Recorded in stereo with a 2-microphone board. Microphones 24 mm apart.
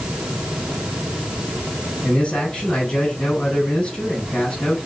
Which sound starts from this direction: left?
A man speaking, at 2.0 s.